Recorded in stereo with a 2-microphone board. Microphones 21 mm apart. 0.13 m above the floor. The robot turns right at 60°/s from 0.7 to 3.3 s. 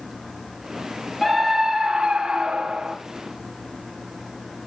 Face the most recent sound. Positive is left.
turn(degrees=-60)